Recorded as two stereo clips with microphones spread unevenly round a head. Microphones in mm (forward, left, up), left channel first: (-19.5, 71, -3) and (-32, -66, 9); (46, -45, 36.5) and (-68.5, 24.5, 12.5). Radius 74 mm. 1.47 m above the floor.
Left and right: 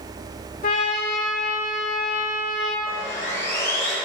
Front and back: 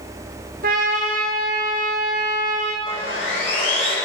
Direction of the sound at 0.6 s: 115° left.